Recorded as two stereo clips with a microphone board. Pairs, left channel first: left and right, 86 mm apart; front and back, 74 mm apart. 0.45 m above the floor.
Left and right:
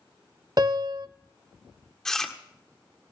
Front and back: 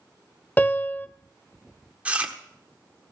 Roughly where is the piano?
Ahead right.